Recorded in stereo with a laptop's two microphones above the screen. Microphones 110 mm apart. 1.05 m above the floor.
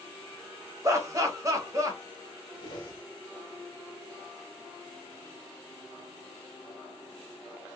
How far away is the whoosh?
About 1.3 m.